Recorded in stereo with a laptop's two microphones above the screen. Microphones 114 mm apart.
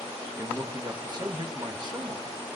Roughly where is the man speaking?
Right.